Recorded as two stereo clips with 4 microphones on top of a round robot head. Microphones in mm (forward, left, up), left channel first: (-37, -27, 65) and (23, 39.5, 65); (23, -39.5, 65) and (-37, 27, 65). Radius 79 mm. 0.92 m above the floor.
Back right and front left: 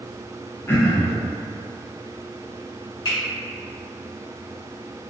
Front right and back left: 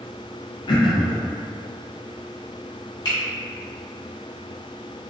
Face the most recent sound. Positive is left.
turn(degrees=-90)